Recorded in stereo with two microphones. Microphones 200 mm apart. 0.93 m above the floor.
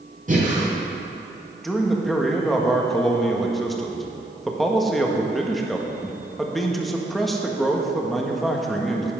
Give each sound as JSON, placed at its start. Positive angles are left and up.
{"t": 0.3, "sound": "breathing", "side_deg": -40, "distance_m": 3.5}
{"t": 1.6, "sound": "a man speaking", "side_deg": 0, "distance_m": 1.4}